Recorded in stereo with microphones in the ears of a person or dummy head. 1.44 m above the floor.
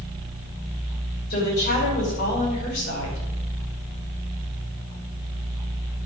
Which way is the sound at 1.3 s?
50° left (ahead or behind).